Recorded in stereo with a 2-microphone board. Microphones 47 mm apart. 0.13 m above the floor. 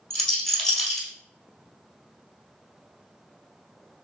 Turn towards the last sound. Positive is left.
turn(degrees=10)  # may be behind; listen again after turning